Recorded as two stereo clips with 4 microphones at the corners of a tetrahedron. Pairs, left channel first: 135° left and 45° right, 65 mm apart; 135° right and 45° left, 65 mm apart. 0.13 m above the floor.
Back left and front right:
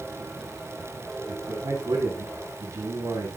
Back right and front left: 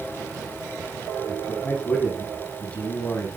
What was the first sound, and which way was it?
A man speaking, 65° right.